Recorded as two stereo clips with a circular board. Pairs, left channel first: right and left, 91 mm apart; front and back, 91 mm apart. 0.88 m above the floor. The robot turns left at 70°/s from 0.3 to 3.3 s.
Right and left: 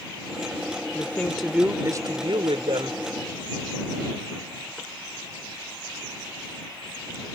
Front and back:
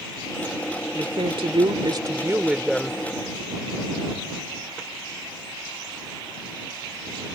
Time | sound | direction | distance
0.9 | a woman speaking | 150° right | ?